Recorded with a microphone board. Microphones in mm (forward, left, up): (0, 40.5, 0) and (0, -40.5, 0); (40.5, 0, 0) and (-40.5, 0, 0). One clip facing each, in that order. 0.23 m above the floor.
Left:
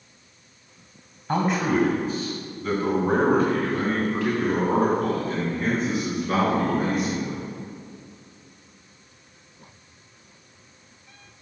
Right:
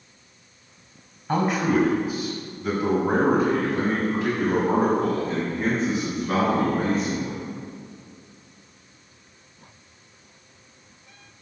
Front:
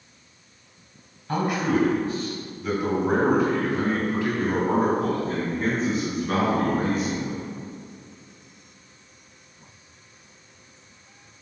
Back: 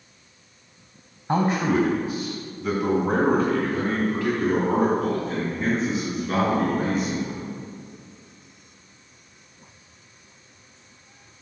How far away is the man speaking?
About 1.6 m.